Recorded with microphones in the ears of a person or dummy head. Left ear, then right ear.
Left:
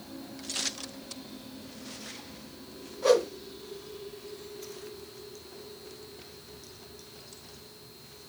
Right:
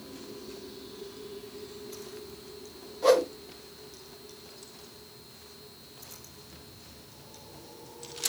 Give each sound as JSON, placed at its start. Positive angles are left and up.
{"t": 3.0, "sound": "a whoosh", "side_deg": -5, "distance_m": 1.2}